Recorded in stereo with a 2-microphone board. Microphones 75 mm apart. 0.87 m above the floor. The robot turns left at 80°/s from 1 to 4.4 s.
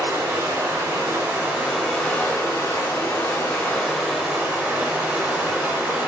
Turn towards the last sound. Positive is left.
turn(degrees=-30)